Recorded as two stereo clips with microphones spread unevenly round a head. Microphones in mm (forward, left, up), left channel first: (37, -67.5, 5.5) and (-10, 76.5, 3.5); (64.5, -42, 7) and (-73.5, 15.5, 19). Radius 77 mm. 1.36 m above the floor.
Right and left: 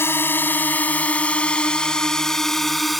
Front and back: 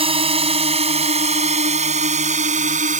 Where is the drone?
150° right; by 3.0 s 160° right.